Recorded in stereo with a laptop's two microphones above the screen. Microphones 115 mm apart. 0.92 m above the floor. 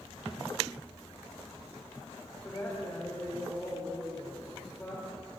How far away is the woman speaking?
About 2.5 m.